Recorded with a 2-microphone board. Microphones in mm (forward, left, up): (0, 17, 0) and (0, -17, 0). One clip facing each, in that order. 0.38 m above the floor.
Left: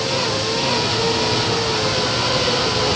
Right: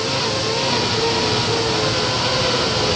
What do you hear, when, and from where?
Only background noise.